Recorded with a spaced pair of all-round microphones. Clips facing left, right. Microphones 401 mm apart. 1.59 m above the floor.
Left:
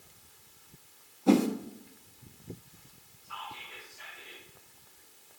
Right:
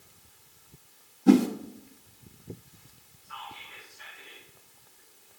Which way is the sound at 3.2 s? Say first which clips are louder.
Even; 85° left.